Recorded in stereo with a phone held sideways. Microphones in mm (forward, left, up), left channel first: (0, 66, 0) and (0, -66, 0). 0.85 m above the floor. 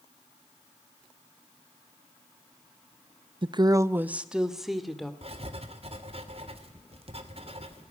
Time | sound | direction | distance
3.4 | a woman speaking | 40° right (ahead or behind) | 0.6 m
5.2 | writing | 50° right (ahead or behind) | 2.5 m